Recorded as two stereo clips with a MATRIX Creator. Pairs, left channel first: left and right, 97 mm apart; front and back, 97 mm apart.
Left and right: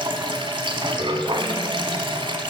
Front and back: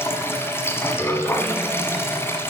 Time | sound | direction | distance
0.0 | running water | 60° right | 1.1 m